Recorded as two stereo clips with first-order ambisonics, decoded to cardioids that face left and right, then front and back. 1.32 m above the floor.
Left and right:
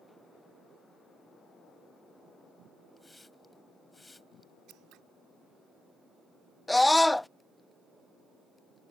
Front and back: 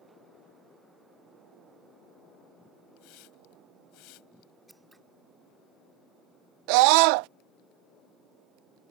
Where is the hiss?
10° left.